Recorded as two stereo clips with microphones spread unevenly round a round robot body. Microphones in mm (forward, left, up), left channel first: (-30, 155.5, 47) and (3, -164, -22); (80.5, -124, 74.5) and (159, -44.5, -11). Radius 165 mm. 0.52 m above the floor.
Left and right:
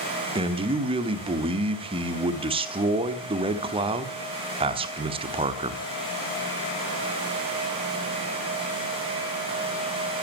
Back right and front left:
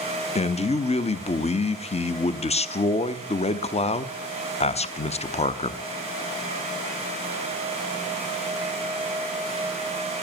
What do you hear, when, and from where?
0.3 s a man speaking: 65° right, 0.9 m